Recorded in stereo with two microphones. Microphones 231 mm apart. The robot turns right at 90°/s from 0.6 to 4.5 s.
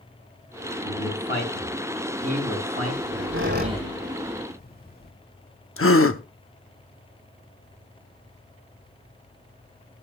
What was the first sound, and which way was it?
A man speaking, 80° left.